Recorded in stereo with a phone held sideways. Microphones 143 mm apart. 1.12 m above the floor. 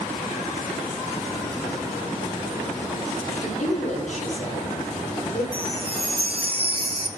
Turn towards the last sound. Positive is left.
turn(degrees=-40)  # may be behind; listen again after turning